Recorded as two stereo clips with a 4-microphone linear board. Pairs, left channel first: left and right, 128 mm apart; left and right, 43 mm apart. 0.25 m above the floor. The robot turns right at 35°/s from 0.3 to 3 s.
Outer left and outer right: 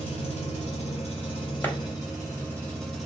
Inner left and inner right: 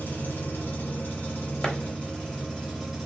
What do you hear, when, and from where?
0.0 s an engine running: 85° left, 1.5 m; by 3.1 s straight behind, 1.5 m
1.6 s a clap: 15° left (ahead or behind), 0.7 m